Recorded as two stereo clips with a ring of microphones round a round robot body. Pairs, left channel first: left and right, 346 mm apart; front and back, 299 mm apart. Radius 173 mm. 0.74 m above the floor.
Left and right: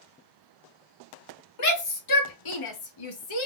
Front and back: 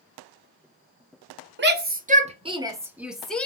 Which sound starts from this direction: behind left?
A shout, at 1.6 s.